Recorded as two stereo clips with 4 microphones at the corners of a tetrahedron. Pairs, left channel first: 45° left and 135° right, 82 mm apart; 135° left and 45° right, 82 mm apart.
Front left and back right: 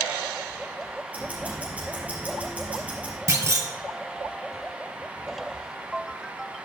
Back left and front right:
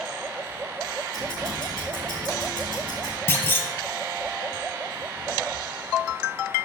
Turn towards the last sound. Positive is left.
turn(degrees=-175)